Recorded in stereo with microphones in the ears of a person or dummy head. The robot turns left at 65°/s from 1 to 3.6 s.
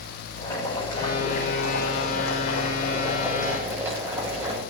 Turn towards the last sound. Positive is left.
turn(degrees=-10)